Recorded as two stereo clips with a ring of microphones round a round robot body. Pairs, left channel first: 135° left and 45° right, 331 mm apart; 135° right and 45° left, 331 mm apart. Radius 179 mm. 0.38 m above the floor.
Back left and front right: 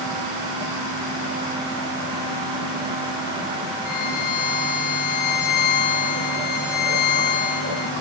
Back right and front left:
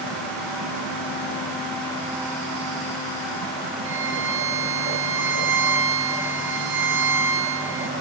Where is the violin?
100° left, 2.5 m.